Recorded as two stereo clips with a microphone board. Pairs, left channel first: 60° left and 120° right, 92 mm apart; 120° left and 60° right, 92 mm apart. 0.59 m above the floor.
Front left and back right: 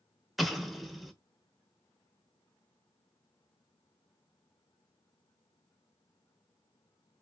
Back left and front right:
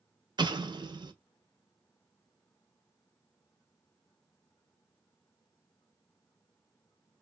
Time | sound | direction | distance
0.4 | an explosion | 30° right | 0.6 m